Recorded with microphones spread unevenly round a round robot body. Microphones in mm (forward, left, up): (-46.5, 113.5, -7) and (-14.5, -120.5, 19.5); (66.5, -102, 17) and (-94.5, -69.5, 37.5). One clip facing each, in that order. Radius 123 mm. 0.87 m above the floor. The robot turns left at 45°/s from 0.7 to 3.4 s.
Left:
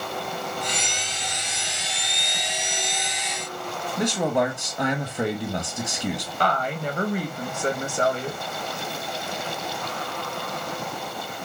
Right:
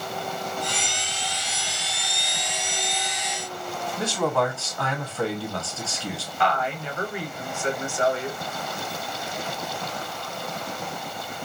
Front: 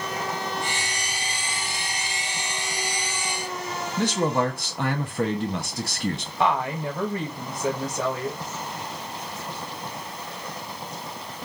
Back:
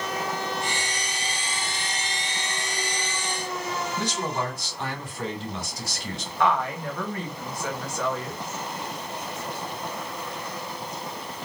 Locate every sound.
4.0 s a man speaking: 25° left, 0.8 m
6.4 s a woman speaking: 55° left, 0.9 m